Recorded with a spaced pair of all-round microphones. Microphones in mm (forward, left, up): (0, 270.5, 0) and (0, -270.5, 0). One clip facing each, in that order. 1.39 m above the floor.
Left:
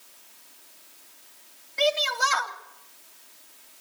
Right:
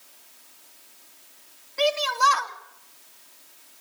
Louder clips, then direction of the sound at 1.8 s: Right 1 dB; 10° left (ahead or behind).